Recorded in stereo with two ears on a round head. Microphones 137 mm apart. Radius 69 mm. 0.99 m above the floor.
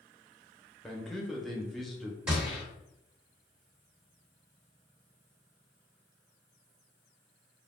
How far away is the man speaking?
About 0.6 m.